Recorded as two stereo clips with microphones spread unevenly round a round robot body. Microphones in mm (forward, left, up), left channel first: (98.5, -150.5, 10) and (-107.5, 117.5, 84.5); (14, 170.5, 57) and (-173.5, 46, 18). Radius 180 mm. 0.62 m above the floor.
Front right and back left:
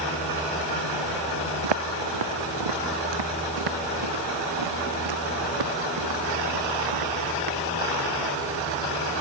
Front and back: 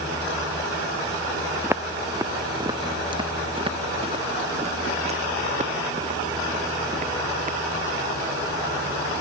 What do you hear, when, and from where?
1.6 s footsteps: 135° left; by 7.6 s 160° left